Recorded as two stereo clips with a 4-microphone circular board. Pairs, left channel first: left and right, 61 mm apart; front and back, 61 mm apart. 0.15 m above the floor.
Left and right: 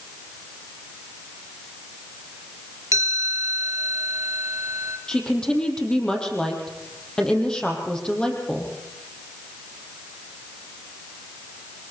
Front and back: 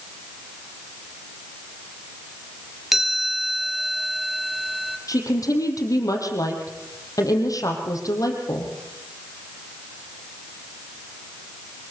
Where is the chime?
95° right, 2 m.